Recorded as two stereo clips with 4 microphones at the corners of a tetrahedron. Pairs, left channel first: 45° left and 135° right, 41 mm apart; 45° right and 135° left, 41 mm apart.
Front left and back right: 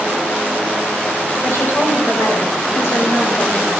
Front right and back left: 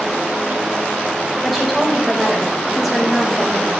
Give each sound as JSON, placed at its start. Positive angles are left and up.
{"t": 1.4, "sound": "a woman speaking", "azimuth_deg": 45, "distance_m": 3.5}